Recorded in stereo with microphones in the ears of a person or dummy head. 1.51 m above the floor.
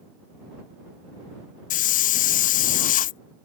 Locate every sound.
1.7 s a hiss: 45° left (ahead or behind)